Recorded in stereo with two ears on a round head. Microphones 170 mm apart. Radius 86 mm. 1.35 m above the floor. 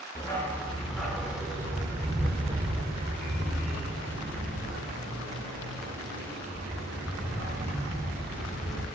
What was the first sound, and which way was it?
A dog barking, 20° left (ahead or behind).